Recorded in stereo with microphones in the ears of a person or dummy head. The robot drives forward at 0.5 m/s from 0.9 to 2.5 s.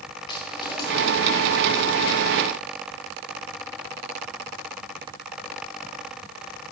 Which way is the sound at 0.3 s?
25° left (ahead or behind).